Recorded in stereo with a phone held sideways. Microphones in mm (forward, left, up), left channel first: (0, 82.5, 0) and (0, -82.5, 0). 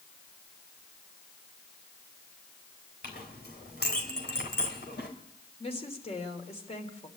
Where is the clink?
80° left, 3.5 m.